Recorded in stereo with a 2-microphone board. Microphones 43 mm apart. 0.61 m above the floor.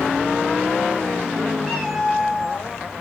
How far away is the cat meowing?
About 1.6 m.